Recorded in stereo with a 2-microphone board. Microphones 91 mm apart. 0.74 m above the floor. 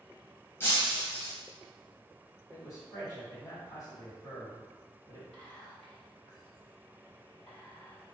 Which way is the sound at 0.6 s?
30° left (ahead or behind).